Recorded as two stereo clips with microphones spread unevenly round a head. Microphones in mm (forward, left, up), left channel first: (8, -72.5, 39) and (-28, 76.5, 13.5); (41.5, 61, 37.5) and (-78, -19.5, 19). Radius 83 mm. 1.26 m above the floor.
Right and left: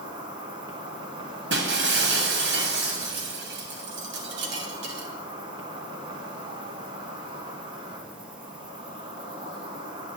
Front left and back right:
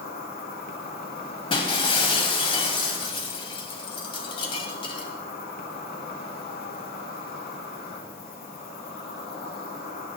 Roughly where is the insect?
Ahead left.